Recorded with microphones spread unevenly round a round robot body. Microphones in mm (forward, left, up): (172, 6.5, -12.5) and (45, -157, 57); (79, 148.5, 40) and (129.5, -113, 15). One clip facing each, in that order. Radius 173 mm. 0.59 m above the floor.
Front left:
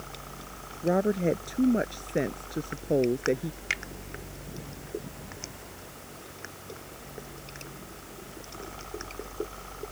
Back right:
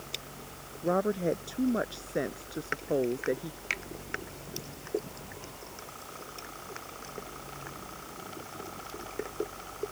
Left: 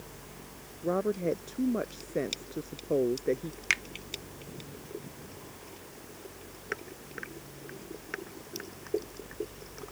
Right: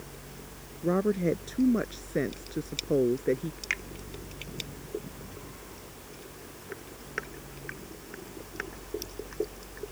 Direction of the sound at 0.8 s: 15° right.